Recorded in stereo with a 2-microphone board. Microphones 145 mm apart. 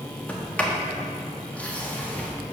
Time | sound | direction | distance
0.3 | a sliding door | 10° left (ahead or behind) | 1.5 m